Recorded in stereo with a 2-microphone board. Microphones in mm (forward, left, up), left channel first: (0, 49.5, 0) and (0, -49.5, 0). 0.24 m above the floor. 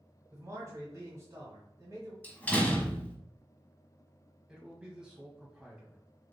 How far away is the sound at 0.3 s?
About 1.5 m.